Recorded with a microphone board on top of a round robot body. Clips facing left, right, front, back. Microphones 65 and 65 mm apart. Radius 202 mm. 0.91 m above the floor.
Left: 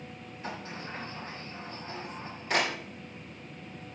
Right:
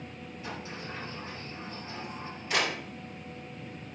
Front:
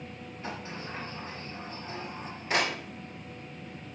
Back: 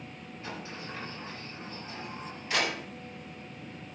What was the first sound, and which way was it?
A sliding door, 55° left.